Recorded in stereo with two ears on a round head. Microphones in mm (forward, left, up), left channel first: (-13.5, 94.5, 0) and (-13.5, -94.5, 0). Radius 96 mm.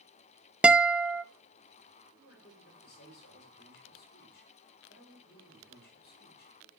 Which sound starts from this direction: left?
A man speaking, at 2.2 s.